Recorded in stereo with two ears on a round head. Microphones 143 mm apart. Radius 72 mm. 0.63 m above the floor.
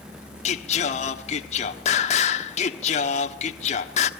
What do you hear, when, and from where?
0.5 s singing: 50° left (ahead or behind), 1.2 m